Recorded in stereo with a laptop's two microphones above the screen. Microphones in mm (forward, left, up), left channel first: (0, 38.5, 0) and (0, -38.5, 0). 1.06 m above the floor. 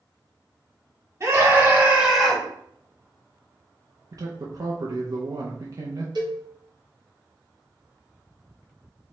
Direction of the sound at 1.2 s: 45° right (ahead or behind).